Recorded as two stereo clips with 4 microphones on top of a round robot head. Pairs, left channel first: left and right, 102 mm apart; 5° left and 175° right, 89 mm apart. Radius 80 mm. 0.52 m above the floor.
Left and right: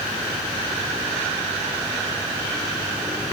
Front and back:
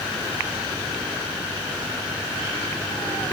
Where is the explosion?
I don't hear an explosion.